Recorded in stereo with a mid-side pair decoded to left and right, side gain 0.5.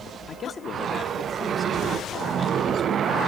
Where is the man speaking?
50° left, 1.8 m.